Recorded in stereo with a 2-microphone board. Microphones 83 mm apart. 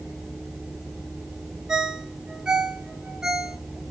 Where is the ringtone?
10° right (ahead or behind), 1.5 m.